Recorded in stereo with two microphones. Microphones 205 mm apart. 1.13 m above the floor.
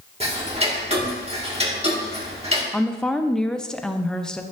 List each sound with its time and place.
0.2 s ticking: 30° right (ahead or behind), 1.5 m
2.7 s a woman speaking: 5° left (ahead or behind), 0.5 m